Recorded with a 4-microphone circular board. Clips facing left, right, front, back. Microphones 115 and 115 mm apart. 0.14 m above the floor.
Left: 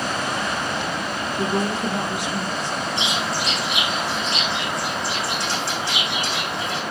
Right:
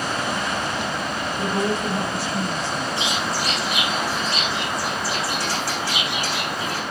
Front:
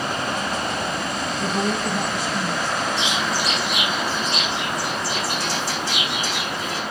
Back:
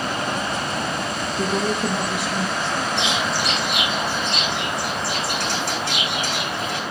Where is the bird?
160° left, 10 m.